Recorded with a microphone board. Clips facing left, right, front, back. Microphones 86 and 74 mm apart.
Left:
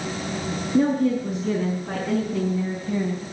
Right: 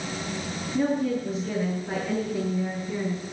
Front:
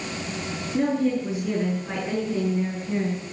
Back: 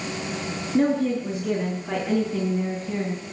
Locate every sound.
0.7 s a woman speaking: 95° left, 8 m; by 3.3 s 90° left, 4 m